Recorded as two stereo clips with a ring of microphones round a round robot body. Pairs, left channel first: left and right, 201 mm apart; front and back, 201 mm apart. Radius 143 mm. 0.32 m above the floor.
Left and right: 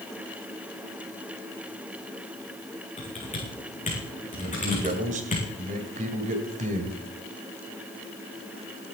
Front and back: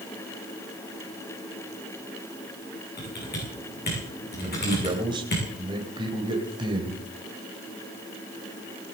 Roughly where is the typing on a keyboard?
Ahead left.